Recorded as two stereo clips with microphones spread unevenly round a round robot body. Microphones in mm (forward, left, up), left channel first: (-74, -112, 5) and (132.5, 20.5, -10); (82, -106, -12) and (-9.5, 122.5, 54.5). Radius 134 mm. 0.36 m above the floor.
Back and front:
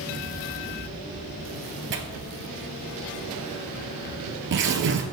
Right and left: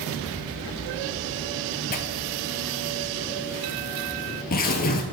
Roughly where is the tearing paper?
Ahead.